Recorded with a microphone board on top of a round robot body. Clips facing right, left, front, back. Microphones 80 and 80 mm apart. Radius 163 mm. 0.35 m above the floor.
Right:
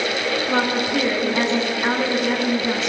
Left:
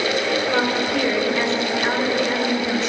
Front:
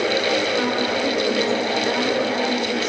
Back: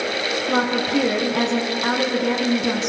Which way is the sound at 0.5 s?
165° right.